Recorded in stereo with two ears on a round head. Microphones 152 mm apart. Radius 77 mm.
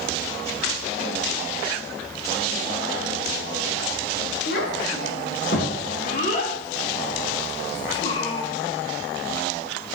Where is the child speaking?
65° left (ahead or behind), 3 m; by 8.5 s 20° left (ahead or behind), 2 m.